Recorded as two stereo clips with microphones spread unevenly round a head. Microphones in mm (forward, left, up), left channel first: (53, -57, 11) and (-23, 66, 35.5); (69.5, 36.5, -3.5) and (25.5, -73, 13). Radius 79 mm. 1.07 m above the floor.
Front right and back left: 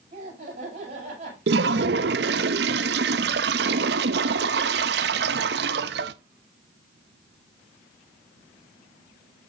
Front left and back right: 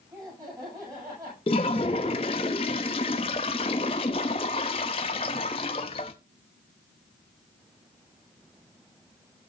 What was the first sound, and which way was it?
Laughter, 175° left.